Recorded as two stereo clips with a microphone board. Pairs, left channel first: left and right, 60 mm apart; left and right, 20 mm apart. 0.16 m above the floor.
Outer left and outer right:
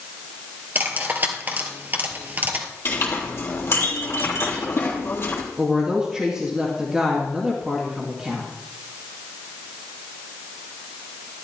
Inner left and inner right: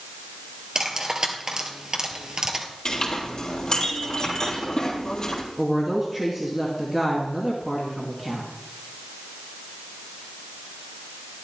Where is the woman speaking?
10° right (ahead or behind), 2 m.